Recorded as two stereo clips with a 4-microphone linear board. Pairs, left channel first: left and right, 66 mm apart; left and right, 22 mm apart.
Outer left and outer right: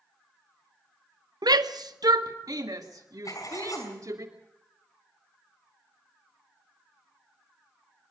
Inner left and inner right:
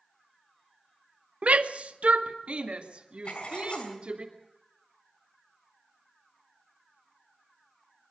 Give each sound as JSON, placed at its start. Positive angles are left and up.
{"t": 1.4, "sound": "a shout", "side_deg": -75, "distance_m": 0.9}
{"t": 3.2, "sound": "writing", "side_deg": 60, "distance_m": 4.5}